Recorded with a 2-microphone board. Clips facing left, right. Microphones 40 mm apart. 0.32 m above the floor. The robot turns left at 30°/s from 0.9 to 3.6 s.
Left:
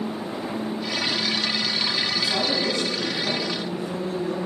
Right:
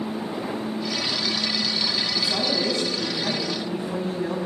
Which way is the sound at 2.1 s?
5° left.